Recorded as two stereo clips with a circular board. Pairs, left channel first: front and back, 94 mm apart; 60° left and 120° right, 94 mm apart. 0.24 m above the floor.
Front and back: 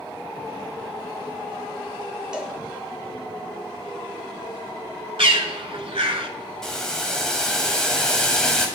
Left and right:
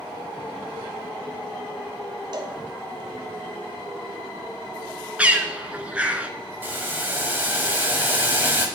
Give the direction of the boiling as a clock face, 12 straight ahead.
3 o'clock.